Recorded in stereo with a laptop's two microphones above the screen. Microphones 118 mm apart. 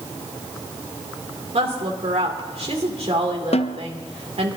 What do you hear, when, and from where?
1.5 s a woman speaking: 60° right (ahead or behind), 2.5 m
3.5 s a snare drum: 60° left (ahead or behind), 0.5 m